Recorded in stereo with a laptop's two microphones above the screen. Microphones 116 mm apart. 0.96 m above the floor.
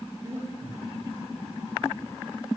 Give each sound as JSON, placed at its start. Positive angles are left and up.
{"t": 0.2, "sound": "breathing", "side_deg": -25, "distance_m": 3.0}